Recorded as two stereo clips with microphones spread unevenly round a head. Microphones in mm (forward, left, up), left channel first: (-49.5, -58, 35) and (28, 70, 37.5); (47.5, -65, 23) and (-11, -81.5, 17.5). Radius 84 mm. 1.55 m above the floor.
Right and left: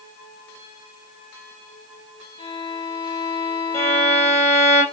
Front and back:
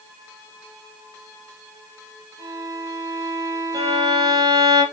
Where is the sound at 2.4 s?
175° left, 3 m.